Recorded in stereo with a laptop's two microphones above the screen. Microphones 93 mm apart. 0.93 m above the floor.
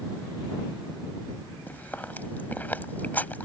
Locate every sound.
1.7 s chewing: 20° left (ahead or behind)